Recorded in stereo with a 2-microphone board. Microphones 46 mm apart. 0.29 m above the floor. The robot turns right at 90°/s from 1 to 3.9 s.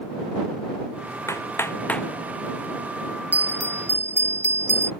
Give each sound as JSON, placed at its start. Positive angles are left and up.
{"t": 1.3, "sound": "hammering", "side_deg": 85}
{"t": 3.3, "sound": "a bell", "azimuth_deg": -140}